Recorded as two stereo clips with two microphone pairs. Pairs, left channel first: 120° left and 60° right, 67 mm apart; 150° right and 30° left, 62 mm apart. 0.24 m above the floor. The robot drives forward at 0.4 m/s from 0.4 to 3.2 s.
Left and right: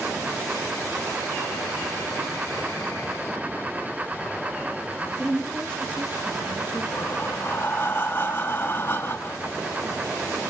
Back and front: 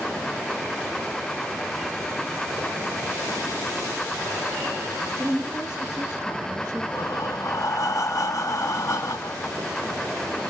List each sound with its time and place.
5.2 s a woman speaking: 115° right, 3 m
6.9 s breathing: straight behind, 0.6 m